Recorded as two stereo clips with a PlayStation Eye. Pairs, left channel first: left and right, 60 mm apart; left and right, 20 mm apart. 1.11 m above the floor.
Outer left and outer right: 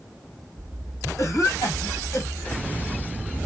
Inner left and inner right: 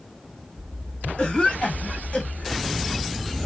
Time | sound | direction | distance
1.2 | a cough | 70° left (ahead or behind) | 1.8 m